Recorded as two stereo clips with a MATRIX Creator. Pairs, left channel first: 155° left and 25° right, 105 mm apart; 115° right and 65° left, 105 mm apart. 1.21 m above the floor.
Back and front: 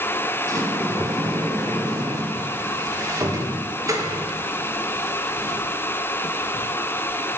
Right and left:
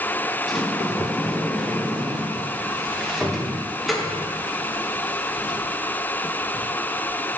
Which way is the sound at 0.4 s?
20° right.